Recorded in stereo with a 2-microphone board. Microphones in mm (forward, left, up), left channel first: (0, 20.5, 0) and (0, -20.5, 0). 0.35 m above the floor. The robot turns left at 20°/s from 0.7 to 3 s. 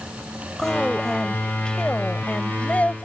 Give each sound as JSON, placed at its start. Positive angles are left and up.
{"t": 0.6, "sound": "a woman speaking", "azimuth_deg": 170}